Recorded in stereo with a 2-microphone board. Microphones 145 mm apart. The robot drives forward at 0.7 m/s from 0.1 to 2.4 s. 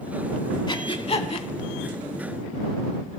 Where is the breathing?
35° left (ahead or behind), 0.9 m; by 1.5 s 45° left (ahead or behind), 0.7 m.